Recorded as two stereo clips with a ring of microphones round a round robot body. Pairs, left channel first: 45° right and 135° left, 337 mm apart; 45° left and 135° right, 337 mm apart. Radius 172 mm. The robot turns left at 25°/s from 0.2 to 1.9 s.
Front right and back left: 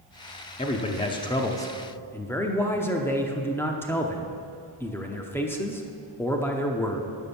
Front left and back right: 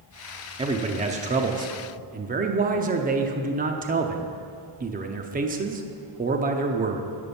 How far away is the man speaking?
About 0.7 m.